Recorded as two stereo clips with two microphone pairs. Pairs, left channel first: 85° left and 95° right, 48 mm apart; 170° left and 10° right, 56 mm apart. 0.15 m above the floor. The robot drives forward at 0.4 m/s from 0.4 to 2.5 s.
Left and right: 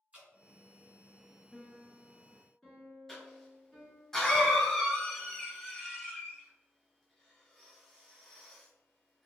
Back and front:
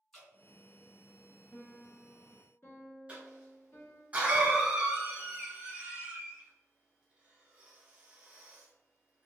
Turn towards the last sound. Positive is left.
turn(degrees=5)